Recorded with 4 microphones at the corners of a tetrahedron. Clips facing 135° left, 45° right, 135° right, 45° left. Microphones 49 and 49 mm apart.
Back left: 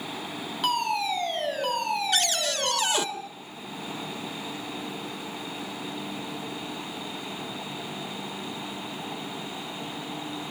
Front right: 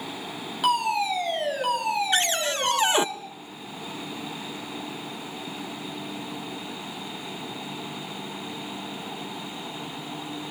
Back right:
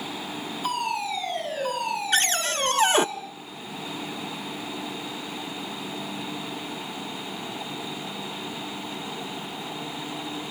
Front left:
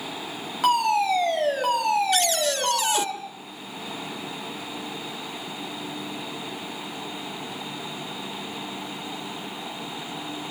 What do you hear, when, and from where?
0.6 s a fire alarm: 40° left, 7.5 m
2.1 s a cupboard door: 100° right, 0.6 m